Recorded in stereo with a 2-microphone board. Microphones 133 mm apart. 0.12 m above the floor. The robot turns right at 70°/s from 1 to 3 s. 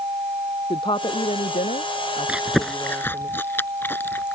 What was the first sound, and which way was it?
A woman speaking, 40° left.